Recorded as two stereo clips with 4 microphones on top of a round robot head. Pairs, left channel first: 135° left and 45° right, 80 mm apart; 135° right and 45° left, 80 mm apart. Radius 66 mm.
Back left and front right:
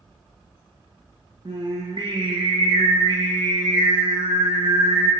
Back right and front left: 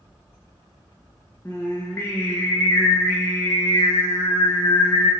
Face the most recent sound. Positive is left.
turn(degrees=-70)